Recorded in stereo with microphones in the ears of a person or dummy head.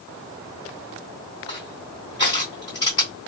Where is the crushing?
20° left (ahead or behind), 1.8 m.